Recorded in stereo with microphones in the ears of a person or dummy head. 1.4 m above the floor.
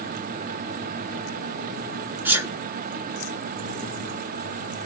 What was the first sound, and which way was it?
A sneeze, 10° right (ahead or behind).